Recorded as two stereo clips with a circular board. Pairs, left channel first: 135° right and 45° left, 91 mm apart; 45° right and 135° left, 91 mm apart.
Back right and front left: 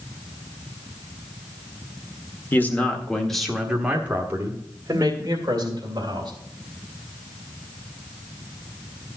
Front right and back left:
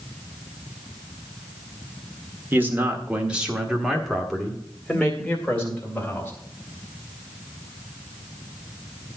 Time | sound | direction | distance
2.5 | a man speaking | straight behind | 1.5 m